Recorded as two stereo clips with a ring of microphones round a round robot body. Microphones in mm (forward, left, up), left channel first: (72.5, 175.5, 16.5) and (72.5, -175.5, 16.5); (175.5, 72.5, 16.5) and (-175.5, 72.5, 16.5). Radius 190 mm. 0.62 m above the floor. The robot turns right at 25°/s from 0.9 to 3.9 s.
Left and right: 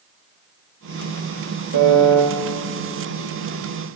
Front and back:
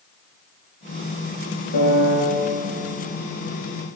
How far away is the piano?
About 1.3 m.